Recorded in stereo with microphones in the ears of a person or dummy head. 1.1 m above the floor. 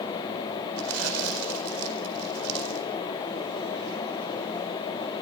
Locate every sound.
0.8 s crumpling: 85° right, 4.5 m